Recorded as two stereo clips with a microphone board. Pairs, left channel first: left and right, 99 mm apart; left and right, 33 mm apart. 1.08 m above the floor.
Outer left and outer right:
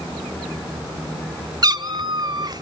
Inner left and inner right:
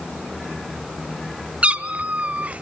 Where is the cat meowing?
40° right (ahead or behind), 0.9 m; by 2.6 s 45° right (ahead or behind), 1.4 m.